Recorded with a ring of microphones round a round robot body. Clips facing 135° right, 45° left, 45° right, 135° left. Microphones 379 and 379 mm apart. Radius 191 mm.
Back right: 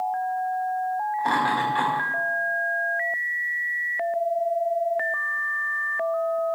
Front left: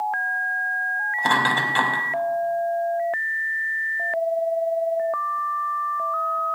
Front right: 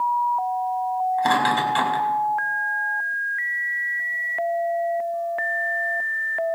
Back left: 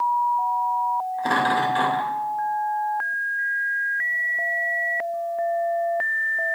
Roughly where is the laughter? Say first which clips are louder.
Front left 3 dB, back left 2 dB; ahead.